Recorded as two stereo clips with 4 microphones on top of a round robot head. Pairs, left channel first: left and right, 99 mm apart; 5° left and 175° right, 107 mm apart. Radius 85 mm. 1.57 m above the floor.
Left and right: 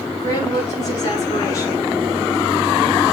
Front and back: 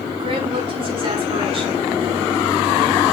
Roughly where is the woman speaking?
Behind left.